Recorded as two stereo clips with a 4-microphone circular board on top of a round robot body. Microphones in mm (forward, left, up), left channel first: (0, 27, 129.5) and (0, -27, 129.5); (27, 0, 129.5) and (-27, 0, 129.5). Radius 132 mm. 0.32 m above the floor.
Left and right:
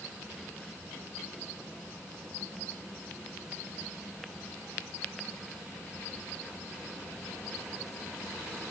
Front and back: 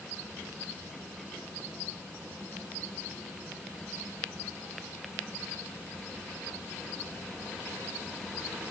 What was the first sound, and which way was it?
Only background noise.